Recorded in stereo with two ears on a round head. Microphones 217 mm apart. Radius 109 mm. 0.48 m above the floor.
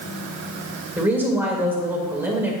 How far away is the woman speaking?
About 1.6 m.